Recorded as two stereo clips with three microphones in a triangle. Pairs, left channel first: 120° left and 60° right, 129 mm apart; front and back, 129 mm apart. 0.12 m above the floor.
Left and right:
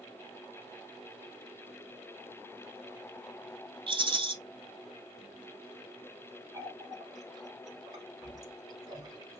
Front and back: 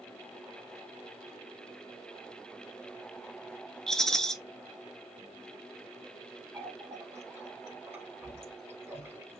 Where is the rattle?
85° right, 0.7 m.